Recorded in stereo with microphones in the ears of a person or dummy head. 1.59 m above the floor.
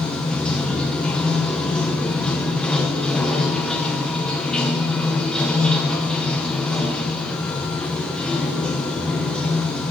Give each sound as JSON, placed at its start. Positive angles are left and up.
{"t": 0.0, "sound": "running water", "side_deg": 5, "distance_m": 1.0}